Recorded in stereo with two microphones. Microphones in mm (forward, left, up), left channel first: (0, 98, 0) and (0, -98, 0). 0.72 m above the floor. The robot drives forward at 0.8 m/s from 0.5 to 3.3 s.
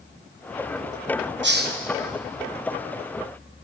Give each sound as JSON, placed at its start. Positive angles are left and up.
{"t": 1.4, "sound": "a hiss", "side_deg": -60, "distance_m": 0.5}